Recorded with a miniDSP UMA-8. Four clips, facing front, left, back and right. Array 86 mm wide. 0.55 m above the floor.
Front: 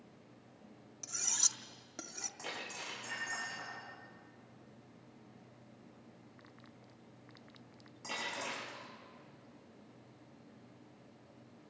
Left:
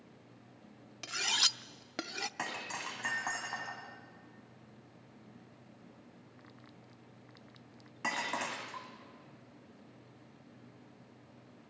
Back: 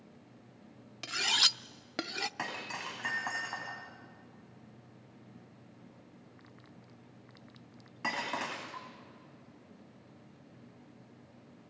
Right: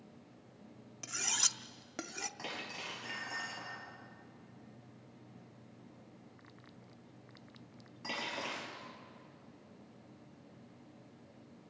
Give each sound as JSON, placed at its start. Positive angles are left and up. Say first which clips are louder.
{"t": 1.0, "sound": "cutlery clinking", "louder": "left 4 dB, back 13 dB", "azimuth_deg": 155, "distance_m": 0.5}
{"t": 2.4, "sound": "breaking glass", "louder": "left 6 dB, back 6 dB", "azimuth_deg": 135, "distance_m": 7.5}